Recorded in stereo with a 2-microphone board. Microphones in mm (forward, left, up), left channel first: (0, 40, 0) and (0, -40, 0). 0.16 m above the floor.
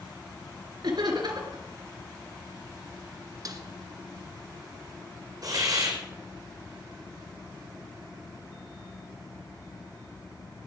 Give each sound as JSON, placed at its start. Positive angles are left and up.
{"t": 0.8, "sound": "laughter", "side_deg": -60, "distance_m": 3.0}
{"t": 3.5, "sound": "a snare drum", "side_deg": -50, "distance_m": 1.4}
{"t": 5.4, "sound": "a hiss", "side_deg": -50, "distance_m": 4.5}